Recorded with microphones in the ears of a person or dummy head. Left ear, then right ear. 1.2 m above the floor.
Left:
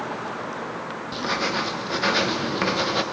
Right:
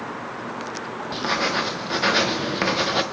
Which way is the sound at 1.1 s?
10° right (ahead or behind).